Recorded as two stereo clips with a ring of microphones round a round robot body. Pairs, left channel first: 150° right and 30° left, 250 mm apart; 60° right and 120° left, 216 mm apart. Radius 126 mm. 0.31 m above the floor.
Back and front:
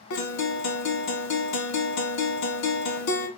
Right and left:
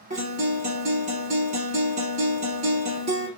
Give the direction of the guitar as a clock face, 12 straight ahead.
6 o'clock.